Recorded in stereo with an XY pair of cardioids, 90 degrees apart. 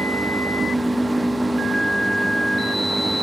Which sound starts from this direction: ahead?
A machine running, at 0.0 s.